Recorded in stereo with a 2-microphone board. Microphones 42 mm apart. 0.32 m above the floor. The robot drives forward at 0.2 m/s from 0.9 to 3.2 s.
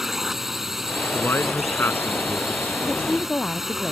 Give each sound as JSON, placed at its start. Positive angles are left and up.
{"t": 0.0, "sound": "a drone", "side_deg": -10}
{"t": 1.1, "sound": "a man speaking", "side_deg": 65}
{"t": 2.8, "sound": "a woman speaking", "side_deg": 30}